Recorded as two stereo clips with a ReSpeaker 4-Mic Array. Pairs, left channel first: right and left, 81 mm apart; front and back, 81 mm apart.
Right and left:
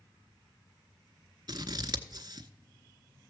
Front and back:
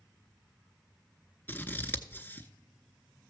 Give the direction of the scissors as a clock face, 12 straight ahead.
10 o'clock.